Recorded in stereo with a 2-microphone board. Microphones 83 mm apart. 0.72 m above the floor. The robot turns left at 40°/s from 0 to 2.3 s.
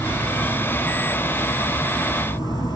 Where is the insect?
160° right, 1.2 m; by 2.8 s 105° left, 1.2 m.